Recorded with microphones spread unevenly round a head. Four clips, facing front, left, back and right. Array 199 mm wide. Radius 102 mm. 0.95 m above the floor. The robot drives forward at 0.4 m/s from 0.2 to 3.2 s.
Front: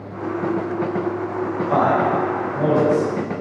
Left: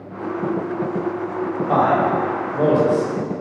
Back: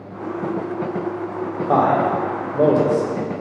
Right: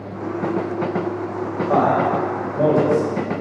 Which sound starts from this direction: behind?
A man speaking, at 1.7 s.